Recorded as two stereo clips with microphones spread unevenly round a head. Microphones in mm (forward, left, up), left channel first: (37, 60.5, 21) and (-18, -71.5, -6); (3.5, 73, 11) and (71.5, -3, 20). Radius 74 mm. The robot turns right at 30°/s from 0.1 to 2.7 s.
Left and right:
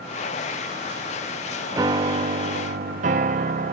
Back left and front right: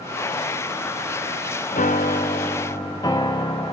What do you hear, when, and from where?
1.7 s a piano: 175° left, 0.6 m; by 3.7 s 155° right, 0.6 m